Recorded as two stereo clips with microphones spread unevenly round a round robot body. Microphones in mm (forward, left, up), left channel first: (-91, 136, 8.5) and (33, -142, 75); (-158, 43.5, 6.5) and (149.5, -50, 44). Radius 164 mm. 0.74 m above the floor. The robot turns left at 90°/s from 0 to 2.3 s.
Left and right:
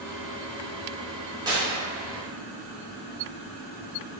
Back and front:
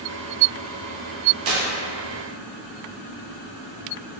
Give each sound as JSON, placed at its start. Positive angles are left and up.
{"t": 1.4, "sound": "tearing paper", "azimuth_deg": 15, "distance_m": 0.8}